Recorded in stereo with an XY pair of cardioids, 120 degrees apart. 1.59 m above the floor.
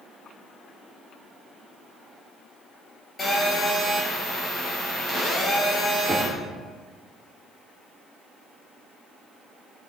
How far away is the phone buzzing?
About 6 m.